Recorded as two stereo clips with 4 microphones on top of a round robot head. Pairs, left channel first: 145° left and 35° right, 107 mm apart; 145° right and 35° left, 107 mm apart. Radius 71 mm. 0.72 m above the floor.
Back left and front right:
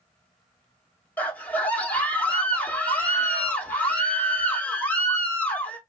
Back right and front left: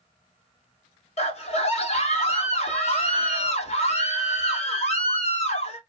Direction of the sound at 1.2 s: 145° right.